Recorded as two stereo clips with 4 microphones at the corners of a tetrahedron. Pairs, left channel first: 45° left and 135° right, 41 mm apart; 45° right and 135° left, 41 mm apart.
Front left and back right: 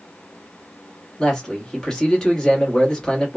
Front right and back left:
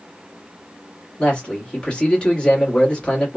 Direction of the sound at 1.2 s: 15° right.